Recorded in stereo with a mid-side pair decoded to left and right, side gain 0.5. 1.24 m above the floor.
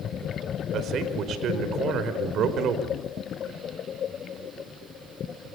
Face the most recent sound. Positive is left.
turn(degrees=-60)